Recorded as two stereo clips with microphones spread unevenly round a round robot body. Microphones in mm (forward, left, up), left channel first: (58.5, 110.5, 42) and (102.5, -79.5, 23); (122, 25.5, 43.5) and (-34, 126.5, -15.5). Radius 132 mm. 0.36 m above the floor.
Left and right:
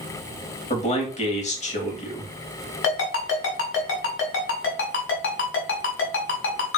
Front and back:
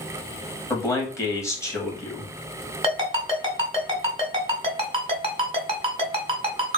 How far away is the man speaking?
About 2 m.